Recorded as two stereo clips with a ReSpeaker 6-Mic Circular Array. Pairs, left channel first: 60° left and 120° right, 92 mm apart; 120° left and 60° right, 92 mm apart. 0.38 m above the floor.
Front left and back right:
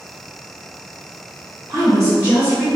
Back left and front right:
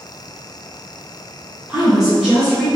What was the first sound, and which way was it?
A woman speaking, 125° right.